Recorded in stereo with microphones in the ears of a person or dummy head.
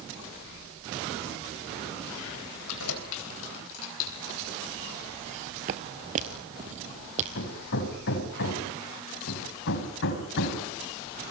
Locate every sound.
2.7 s keys jangling: 75° left (ahead or behind), 3.5 m
5.2 s footsteps: 25° right (ahead or behind), 1.3 m; by 7.2 s 40° right (ahead or behind), 2.5 m
7.3 s hammering: 65° left (ahead or behind), 3.5 m